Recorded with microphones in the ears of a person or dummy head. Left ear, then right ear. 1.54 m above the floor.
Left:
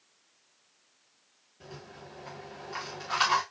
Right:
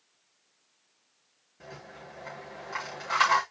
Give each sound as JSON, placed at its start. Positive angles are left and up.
{"t": 1.6, "sound": "a rattle", "side_deg": -45, "distance_m": 3.5}